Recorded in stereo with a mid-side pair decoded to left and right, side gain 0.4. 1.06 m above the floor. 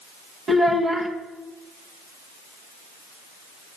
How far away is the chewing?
No chewing in this recording.